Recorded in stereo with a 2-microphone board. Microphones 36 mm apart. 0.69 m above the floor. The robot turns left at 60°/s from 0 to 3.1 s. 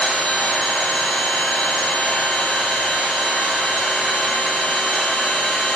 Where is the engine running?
155° left, 1.5 m; by 5.8 s 30° right, 1.5 m.